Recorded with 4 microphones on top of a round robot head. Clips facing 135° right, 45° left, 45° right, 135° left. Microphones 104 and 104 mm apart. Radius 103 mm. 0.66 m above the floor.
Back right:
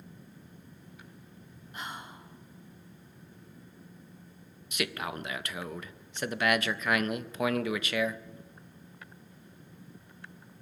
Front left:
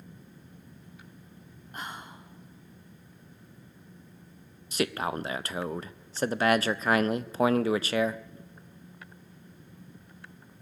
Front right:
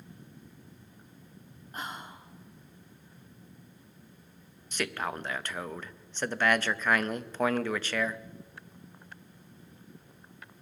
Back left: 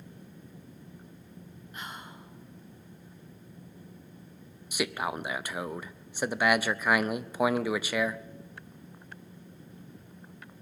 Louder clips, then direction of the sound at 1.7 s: Front left 1 dB, front right 3 dB; 5° left.